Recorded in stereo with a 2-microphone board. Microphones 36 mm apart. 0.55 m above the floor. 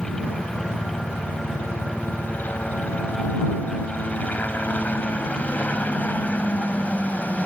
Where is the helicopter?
60° left (ahead or behind); by 7.5 s 45° left (ahead or behind).